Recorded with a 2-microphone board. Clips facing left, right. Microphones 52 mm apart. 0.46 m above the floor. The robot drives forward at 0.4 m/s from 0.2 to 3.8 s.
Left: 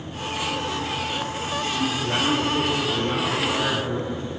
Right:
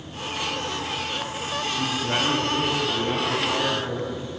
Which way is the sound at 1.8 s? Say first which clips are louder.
Even; 15° right (ahead or behind).